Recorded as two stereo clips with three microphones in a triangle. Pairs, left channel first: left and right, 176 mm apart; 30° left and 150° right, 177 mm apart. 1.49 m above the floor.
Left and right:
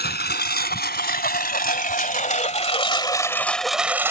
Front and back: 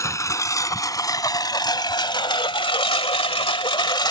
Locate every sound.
0.0 s a lawn mower: 100° left; by 4.1 s 25° right